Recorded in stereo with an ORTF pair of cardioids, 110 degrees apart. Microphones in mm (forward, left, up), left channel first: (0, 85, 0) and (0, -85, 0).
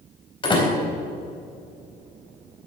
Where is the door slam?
30° left, 4 m.